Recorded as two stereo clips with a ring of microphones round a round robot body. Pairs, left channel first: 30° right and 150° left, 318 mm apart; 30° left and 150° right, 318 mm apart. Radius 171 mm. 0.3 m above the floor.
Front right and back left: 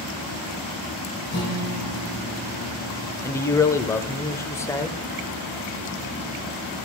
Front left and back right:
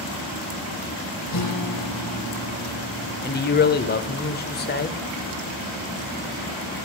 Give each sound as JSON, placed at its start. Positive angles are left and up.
{"t": 1.3, "sound": "a guitar", "azimuth_deg": 30, "distance_m": 5.0}
{"t": 3.2, "sound": "a man speaking", "azimuth_deg": 40, "distance_m": 1.1}